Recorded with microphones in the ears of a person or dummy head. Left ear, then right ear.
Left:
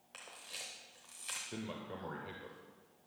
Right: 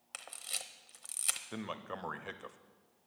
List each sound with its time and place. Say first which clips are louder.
0.1 s a camera shutter: right 5 dB; 35° right (ahead or behind), 0.7 m
1.5 s a man speaking: right 3 dB; 45° right (ahead or behind), 0.6 m